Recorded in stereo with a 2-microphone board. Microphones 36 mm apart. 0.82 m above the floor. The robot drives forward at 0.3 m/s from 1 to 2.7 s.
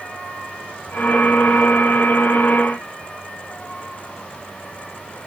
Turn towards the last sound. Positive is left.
No sound to turn to.